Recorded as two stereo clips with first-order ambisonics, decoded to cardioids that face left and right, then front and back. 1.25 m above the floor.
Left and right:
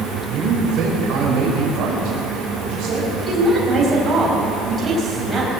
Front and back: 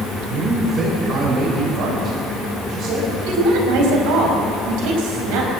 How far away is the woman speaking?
About 6 m.